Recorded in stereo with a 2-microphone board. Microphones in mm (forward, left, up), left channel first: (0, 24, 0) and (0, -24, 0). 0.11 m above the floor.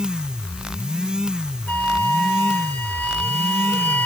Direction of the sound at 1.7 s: 25° left (ahead or behind).